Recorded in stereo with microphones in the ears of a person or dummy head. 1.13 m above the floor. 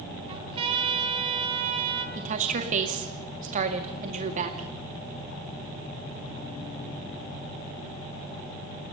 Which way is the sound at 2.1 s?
40° right (ahead or behind).